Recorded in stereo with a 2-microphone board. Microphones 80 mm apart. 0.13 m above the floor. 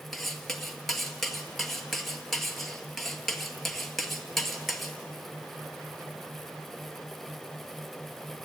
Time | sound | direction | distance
0.1 | cutlery clinking | centre (ahead or behind) | 1.8 m